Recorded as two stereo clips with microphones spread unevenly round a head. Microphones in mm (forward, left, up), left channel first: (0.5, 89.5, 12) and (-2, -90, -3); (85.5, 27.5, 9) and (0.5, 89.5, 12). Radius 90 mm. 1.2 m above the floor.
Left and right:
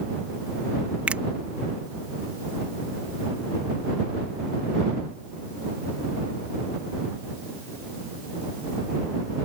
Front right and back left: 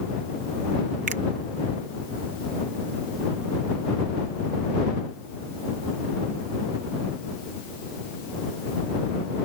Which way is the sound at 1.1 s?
175° right.